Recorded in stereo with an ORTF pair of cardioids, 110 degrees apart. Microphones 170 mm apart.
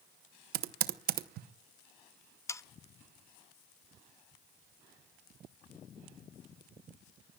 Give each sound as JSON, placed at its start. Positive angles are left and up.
{"t": 0.5, "sound": "typing on a keyboard", "azimuth_deg": -65, "distance_m": 0.9}
{"t": 2.5, "sound": "sawing", "azimuth_deg": 15, "distance_m": 0.5}